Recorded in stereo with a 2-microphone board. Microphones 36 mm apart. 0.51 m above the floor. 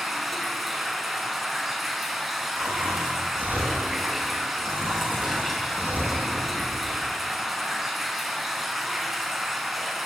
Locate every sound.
0.0 s running water: centre (ahead or behind), 4.5 m
2.6 s snoring: 60° right (ahead or behind), 9.5 m